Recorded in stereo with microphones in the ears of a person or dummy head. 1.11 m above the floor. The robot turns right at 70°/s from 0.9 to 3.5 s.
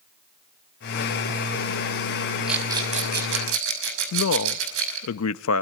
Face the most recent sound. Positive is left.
turn(degrees=80)